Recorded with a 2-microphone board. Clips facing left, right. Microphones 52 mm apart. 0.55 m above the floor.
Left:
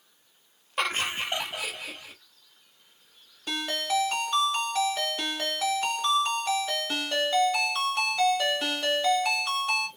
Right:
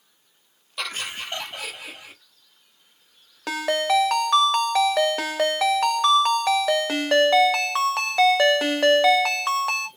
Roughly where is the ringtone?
Right.